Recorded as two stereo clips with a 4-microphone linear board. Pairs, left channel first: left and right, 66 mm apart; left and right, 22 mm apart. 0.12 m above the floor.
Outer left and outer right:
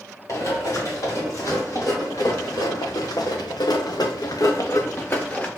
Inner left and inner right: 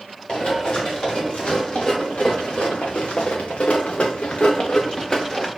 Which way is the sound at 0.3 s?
50° left (ahead or behind).